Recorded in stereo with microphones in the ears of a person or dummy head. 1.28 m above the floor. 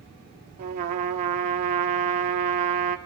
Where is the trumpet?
40° right (ahead or behind), 2.0 m.